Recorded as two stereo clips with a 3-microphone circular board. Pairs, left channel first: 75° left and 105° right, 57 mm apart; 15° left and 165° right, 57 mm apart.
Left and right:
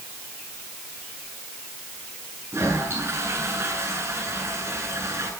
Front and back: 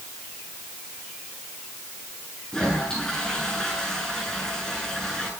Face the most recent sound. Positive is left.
turn(degrees=-65)